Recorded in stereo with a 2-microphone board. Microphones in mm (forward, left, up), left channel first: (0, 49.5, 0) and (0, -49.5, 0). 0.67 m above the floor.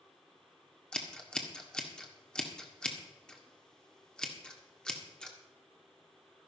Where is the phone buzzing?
No phone buzzing in this recording.